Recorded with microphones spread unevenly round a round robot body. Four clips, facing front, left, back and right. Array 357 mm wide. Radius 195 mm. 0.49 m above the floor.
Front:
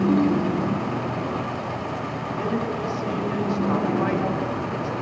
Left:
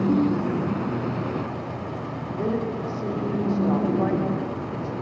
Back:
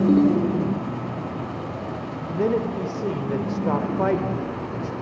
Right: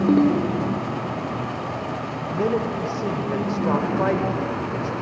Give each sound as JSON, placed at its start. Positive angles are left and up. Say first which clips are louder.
{"t": 0.1, "sound": "a ringtone", "louder": "right 6 dB, back 4 dB", "azimuth_deg": -80, "distance_m": 0.9}
{"t": 2.3, "sound": "a man speaking", "louder": "right 3 dB, back 4 dB", "azimuth_deg": -125, "distance_m": 2.5}